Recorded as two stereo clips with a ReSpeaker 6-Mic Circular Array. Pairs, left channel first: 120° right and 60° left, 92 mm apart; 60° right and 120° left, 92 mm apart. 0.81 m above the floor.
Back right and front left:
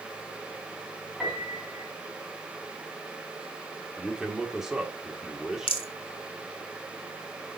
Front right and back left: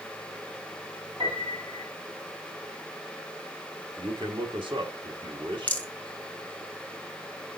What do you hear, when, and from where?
1.2 s a piano: 145° left, 2.5 m
4.0 s a man speaking: 145° left, 1.8 m
5.7 s a rattle: 135° right, 1.3 m